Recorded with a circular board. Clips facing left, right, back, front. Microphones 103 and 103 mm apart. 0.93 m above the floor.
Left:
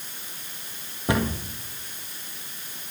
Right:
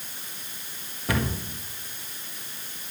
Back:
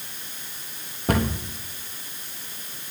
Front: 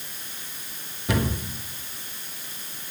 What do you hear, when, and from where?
1.1 s a cupboard door: 150° left, 1.4 m